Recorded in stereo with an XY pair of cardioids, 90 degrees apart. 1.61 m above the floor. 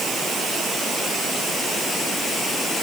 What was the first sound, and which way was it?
Only background noise.